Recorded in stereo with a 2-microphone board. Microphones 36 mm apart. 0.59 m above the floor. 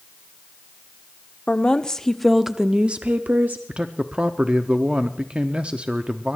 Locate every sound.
1.5 s a woman speaking: 35° left (ahead or behind), 1.1 m; by 3.6 s 55° right (ahead or behind), 1.1 m
3.7 s a man speaking: 30° right (ahead or behind), 0.8 m